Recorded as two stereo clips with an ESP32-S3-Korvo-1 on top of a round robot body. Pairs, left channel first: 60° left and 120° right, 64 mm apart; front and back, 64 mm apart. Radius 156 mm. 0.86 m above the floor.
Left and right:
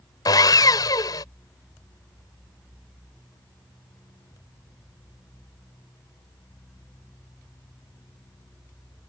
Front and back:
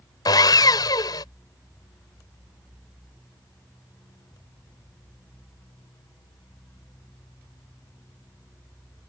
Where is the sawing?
30° left.